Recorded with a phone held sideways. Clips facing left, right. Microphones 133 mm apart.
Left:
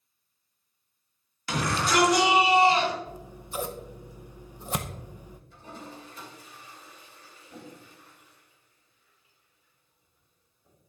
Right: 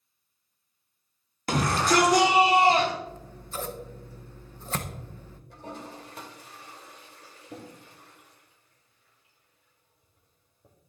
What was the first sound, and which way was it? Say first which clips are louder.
A shout: right 3 dB; 45° right (ahead or behind).